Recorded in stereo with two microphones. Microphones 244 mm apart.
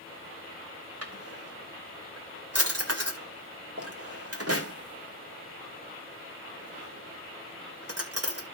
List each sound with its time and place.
1.0 s a drawer: 75° right (ahead or behind), 2.5 m